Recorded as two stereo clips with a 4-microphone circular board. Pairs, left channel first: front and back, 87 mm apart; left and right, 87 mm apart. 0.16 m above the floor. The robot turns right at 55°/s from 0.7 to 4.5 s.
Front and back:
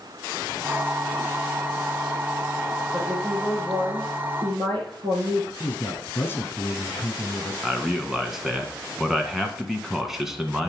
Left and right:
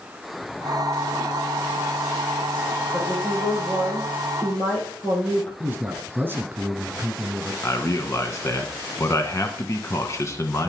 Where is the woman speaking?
75° left, 4 m; by 5.5 s 165° left, 4 m.